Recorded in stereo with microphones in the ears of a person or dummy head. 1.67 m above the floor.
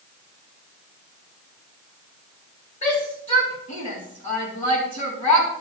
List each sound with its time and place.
2.8 s a shout: 40° left (ahead or behind), 3.5 m